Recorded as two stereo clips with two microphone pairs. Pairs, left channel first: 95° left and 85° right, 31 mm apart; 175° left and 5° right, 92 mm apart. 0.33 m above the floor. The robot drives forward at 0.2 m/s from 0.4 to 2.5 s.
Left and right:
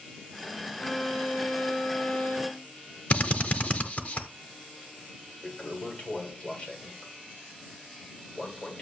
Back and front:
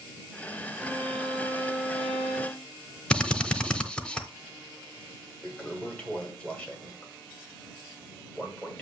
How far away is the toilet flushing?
About 1.7 m.